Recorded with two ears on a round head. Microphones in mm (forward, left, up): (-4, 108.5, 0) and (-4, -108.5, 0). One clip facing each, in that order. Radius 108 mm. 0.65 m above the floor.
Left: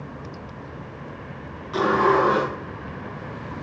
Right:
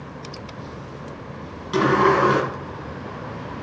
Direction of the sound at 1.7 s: 60° right (ahead or behind).